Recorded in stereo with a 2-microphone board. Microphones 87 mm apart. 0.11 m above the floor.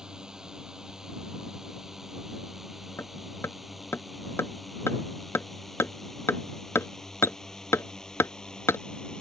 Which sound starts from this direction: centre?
A drone, at 0.0 s.